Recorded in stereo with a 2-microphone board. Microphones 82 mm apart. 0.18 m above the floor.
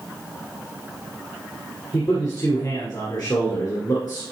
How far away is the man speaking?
About 2 m.